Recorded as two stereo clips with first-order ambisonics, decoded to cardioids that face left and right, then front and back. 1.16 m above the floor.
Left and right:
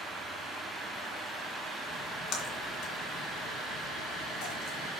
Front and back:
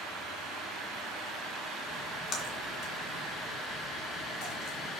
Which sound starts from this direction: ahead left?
A splash, at 1.9 s.